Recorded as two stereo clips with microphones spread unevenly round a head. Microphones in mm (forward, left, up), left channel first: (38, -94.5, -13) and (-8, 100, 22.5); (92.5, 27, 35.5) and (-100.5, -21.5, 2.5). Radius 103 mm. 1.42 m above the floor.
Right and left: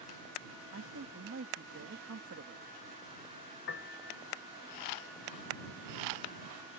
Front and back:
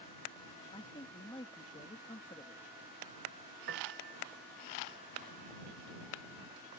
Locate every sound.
0.7 s a man speaking: 80° left
3.7 s a piano: 120° right